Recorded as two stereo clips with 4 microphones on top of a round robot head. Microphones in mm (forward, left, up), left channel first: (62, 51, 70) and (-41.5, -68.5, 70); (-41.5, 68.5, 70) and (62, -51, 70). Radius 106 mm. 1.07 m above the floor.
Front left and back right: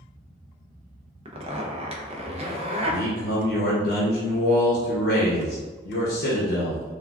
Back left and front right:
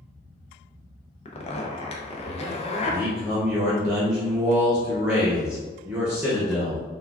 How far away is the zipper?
About 0.5 m.